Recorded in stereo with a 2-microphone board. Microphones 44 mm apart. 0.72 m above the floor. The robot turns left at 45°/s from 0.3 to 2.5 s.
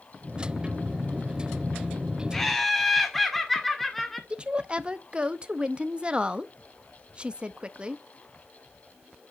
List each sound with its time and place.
2.3 s laughter: 10° left (ahead or behind), 2 m; by 4.2 s 5° left (ahead or behind), 2 m
4.3 s a woman speaking: 25° right (ahead or behind), 0.6 m